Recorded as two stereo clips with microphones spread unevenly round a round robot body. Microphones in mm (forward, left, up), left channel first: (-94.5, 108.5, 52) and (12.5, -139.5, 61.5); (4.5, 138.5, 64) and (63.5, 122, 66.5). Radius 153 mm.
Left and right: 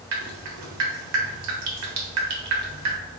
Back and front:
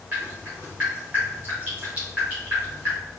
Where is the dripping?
90° right, 1.3 m.